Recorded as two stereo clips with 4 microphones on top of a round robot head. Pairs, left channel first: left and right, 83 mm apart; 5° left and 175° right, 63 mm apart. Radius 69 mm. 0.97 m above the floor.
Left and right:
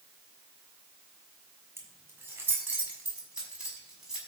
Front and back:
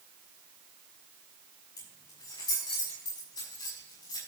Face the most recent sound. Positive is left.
turn(degrees=-5)